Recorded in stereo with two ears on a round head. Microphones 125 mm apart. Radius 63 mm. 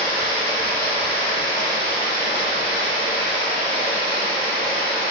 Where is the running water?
40° left (ahead or behind), 1.6 m.